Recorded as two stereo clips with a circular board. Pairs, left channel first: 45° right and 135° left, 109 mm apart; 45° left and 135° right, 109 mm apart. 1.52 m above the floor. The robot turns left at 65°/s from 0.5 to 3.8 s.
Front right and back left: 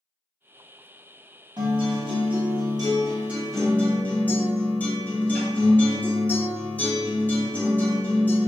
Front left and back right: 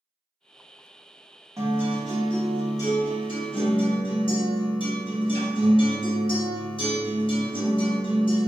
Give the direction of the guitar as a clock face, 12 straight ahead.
6 o'clock.